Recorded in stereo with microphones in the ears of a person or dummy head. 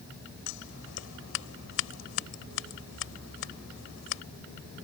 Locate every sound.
0.5 s scissors: 80° left